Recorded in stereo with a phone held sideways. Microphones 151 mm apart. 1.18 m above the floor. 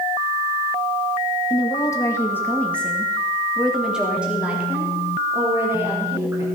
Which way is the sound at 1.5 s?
30° left (ahead or behind).